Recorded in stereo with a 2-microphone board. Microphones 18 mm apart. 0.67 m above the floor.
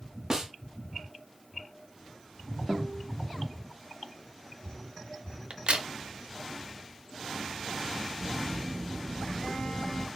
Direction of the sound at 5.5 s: 65° right (ahead or behind).